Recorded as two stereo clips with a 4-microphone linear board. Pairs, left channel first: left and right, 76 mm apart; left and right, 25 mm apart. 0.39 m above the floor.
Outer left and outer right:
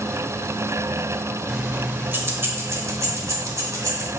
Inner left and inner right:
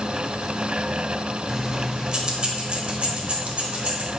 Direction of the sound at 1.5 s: 10° right (ahead or behind).